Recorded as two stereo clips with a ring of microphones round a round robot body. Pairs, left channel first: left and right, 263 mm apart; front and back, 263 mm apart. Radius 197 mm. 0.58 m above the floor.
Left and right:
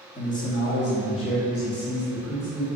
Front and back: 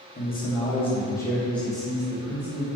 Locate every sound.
0.1 s a man speaking: 35° left, 1.2 m; by 2.7 s 100° left, 2 m